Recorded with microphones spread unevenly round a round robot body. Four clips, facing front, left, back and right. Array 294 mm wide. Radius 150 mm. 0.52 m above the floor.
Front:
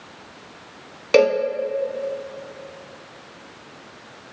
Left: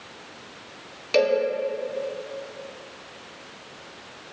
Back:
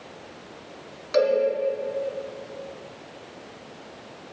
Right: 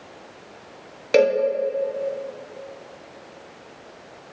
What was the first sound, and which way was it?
A cowbell, 25° right.